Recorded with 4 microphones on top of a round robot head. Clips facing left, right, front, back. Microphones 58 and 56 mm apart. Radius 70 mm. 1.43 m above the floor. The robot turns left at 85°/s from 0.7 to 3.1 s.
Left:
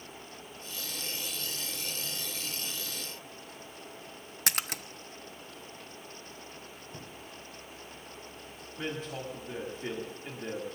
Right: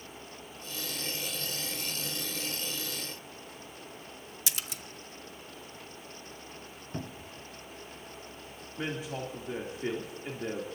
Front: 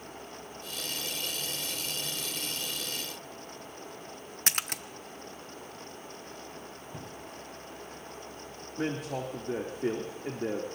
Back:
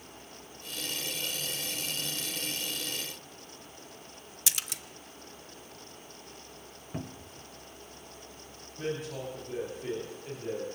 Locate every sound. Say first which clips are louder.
4.5 s a splash: left 7 dB, front 6 dB; 50° left, 0.8 m
6.9 s a cupboard door: right 8 dB, back 5 dB; 135° right, 0.7 m
8.8 s a man speaking: right 1 dB, front 2 dB; 10° right, 2.5 m